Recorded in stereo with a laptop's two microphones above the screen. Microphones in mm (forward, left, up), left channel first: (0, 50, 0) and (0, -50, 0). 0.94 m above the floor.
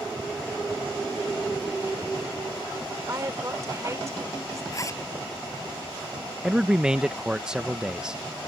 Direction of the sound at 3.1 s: 30° right (ahead or behind).